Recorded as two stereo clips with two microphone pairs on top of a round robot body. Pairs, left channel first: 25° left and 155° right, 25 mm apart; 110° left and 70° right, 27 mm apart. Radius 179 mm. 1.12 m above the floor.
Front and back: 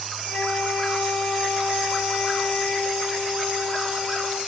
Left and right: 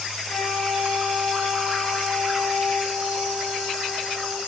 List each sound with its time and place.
0.3 s a flute: 80° left, 9 m